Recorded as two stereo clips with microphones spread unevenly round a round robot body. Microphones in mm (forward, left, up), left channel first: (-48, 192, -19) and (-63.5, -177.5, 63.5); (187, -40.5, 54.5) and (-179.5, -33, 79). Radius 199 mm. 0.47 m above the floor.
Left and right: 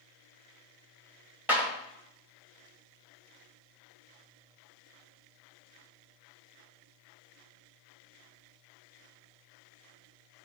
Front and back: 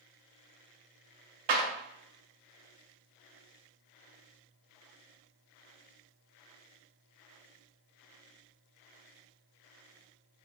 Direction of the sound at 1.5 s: 175° left.